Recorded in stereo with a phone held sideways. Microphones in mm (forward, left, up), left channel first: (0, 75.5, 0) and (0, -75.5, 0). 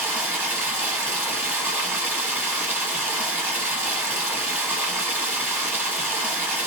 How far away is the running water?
About 1.6 m.